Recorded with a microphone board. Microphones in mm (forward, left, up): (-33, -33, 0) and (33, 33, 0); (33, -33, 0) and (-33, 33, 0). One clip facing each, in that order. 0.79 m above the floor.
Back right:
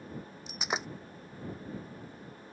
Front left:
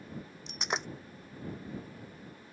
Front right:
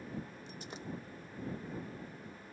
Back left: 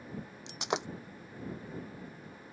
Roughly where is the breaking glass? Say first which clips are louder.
Even, back left 12 dB; behind left.